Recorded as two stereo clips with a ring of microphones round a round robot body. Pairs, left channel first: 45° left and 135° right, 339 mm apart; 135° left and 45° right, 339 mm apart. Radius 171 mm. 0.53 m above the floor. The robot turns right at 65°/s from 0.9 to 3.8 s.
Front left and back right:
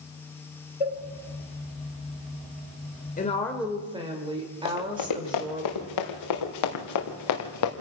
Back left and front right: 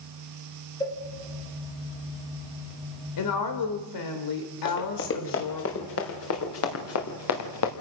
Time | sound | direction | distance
0.8 | a cowbell | 55° left | 2.5 m
3.2 | a woman speaking | 110° left | 2.5 m
4.7 | running footsteps | 80° left | 5 m